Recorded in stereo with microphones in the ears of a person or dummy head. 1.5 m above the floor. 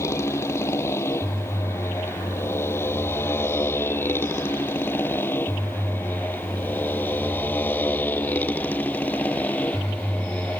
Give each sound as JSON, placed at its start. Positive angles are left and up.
{"t": 0.0, "sound": "a motorcycle", "side_deg": 15}